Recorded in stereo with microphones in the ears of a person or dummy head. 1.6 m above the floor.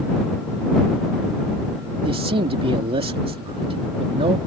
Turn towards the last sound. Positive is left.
turn(degrees=-30)  # may be behind; listen again after turning